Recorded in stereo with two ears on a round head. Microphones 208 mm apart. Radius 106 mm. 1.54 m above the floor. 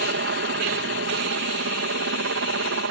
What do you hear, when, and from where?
0.0 s a helicopter: 55° right (ahead or behind); by 2.9 s 60° right (ahead or behind)